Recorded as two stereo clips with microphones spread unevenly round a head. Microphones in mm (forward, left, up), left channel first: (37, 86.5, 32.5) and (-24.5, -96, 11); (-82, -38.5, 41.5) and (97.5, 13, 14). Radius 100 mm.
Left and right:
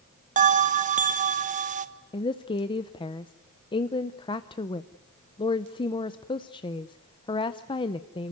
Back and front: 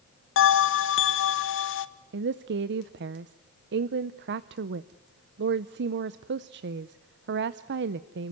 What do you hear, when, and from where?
0.4 s a bell: 150° right, 1.0 m
2.1 s a woman speaking: 5° left, 0.6 m